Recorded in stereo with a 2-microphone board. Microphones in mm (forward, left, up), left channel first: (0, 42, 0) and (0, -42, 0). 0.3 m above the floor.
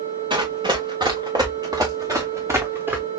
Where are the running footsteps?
70° right (ahead or behind), 2 m; by 3.0 s 20° right (ahead or behind), 1.2 m.